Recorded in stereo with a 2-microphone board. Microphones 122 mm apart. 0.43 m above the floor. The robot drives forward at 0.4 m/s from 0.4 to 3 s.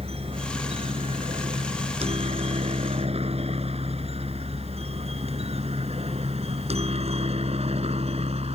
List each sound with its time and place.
0.0 s a helicopter: 55° right (ahead or behind)